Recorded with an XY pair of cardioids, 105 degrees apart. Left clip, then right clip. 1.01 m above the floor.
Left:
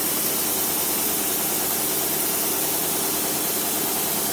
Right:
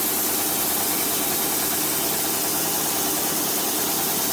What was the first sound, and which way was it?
Only background noise.